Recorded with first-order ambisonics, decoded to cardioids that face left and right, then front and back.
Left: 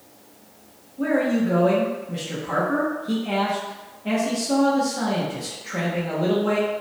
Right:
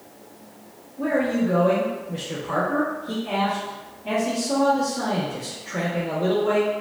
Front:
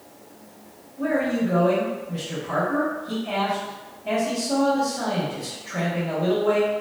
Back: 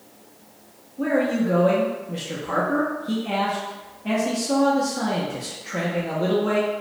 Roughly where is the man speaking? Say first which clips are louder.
Left 1 dB, back 1 dB; behind left.